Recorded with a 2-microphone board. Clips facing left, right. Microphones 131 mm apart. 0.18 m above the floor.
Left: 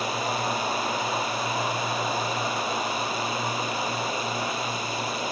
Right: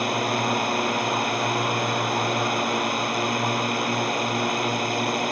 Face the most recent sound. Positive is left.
turn(degrees=-65)  # may be behind; listen again after turning